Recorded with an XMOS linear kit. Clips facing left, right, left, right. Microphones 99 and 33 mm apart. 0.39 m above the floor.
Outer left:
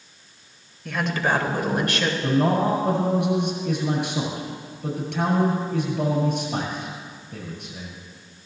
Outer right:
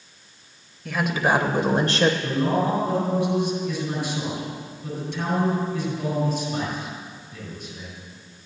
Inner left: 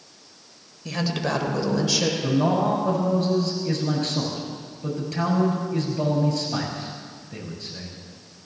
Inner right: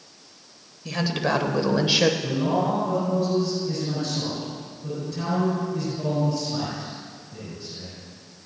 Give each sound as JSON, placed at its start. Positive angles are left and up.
{"t": 0.8, "sound": "a woman speaking", "side_deg": 0, "distance_m": 1.8}
{"t": 2.2, "sound": "a man speaking", "side_deg": 70, "distance_m": 7.0}